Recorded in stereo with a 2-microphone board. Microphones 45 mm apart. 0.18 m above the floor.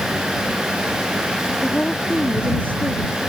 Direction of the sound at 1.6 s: 35° left (ahead or behind).